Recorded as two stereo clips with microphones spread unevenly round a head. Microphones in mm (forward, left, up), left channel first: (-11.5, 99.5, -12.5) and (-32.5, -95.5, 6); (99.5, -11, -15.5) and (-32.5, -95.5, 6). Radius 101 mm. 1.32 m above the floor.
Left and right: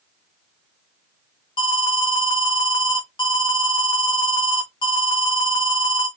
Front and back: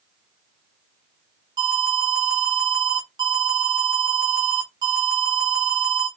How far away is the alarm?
About 0.9 m.